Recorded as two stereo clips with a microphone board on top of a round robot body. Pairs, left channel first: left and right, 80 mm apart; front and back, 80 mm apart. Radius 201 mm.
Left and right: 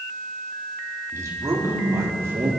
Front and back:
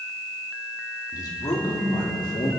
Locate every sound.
1.1 s a man speaking: 40° right, 3 m; by 2.5 s 30° right, 4.5 m